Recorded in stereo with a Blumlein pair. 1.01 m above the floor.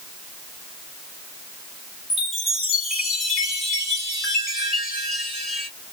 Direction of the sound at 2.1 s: 15° left.